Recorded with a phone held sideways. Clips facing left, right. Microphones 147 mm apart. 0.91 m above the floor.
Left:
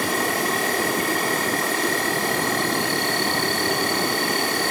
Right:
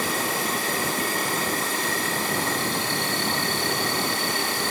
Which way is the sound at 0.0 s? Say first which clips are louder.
Left 4 dB; 65° left (ahead or behind).